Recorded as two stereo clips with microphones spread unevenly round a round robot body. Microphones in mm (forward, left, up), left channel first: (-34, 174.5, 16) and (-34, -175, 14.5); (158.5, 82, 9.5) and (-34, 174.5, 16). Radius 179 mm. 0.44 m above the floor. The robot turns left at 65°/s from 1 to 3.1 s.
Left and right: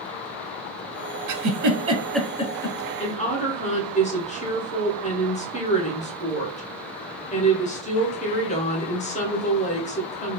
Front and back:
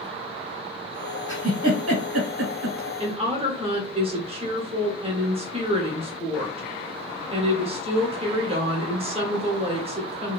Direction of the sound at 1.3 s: 125° right.